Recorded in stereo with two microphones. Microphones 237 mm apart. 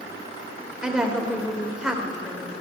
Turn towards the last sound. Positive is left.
turn(degrees=-5)  # may be behind; listen again after turning